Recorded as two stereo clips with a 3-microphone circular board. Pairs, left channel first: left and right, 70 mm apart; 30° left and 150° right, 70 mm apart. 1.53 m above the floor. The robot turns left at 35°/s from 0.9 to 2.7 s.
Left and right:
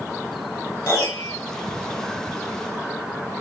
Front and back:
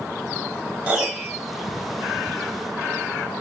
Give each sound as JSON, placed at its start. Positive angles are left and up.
{"t": 0.9, "sound": "a piano", "azimuth_deg": 135, "distance_m": 2.0}